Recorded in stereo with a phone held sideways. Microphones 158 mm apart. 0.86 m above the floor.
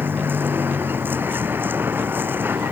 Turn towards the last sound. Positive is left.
turn(degrees=-15)  # may be behind; listen again after turning